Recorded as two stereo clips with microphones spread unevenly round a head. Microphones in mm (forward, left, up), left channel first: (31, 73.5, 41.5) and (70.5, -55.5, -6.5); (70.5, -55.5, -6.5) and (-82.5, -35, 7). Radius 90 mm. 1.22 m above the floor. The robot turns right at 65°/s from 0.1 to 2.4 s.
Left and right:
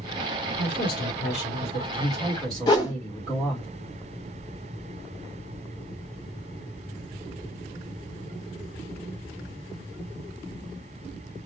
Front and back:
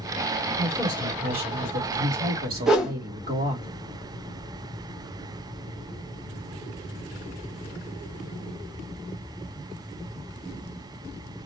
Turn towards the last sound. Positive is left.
turn(degrees=90)